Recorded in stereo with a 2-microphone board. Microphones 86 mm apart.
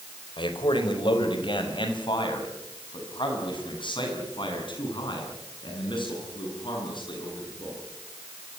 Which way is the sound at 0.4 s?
70° left (ahead or behind).